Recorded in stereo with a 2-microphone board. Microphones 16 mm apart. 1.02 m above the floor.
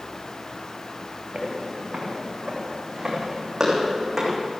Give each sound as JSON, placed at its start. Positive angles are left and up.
{"t": 1.3, "sound": "footsteps", "side_deg": -60, "distance_m": 6.5}